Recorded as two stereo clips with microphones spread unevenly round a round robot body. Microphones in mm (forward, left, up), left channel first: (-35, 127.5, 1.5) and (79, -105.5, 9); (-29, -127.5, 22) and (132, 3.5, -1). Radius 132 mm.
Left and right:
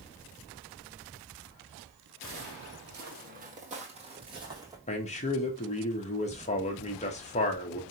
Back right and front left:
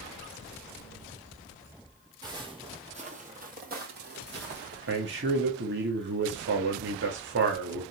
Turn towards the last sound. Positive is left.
turn(degrees=55)